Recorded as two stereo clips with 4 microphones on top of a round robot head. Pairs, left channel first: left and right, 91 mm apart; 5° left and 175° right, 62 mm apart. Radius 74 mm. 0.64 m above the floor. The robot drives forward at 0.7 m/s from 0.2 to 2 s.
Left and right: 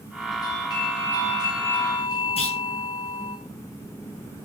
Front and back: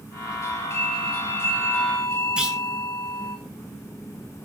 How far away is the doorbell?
About 8.5 m.